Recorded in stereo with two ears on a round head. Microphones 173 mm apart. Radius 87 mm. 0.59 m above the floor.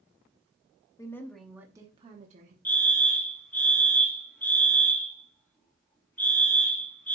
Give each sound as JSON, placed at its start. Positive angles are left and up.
{"t": 1.0, "sound": "a woman speaking", "side_deg": 20, "distance_m": 0.9}
{"t": 2.6, "sound": "a fire alarm", "side_deg": 10, "distance_m": 1.7}